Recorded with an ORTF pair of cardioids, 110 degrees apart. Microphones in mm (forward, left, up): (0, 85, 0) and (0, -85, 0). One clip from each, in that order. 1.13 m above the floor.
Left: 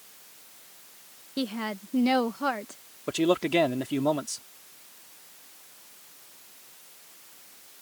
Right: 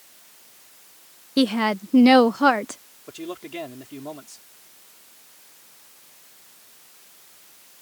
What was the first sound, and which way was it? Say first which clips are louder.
A woman speaking: right 11 dB; 45° right.